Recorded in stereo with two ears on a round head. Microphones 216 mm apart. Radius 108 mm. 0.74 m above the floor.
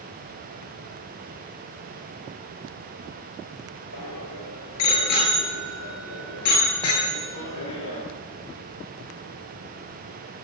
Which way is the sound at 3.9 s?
75° left (ahead or behind).